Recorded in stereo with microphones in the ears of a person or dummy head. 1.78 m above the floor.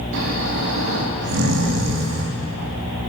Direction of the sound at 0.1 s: 65° right (ahead or behind).